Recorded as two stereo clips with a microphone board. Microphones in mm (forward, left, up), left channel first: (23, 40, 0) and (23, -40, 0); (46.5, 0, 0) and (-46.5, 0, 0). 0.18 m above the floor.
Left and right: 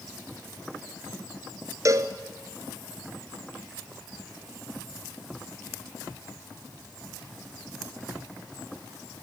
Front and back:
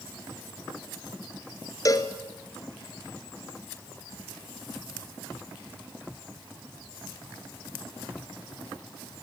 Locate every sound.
1.9 s a cowbell: 50° right, 1.4 m